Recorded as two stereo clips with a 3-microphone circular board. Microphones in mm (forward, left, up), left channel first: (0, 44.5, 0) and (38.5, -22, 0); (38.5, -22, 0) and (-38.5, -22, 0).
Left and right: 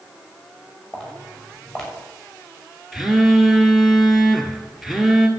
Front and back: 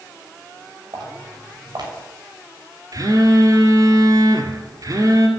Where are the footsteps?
155° right, 6.5 m.